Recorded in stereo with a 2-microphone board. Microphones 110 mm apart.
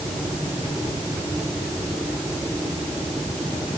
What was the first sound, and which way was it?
Only background noise.